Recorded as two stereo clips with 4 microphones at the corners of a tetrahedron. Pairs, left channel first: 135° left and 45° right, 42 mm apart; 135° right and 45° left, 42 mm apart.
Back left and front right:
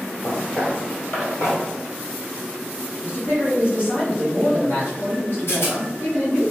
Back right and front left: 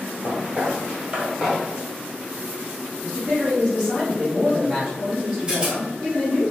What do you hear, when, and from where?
0.2 s footsteps: 95° left, 1.7 m; by 1.6 s 120° left, 2 m
3.0 s a man speaking: 115° left, 1.1 m
5.5 s a rattle: 115° left, 1.0 m